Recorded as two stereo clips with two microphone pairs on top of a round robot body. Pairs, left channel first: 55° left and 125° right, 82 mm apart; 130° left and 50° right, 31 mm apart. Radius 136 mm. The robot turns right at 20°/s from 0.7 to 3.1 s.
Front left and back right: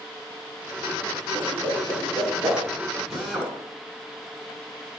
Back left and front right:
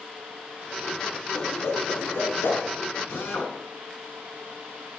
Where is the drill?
150° left, 10 m.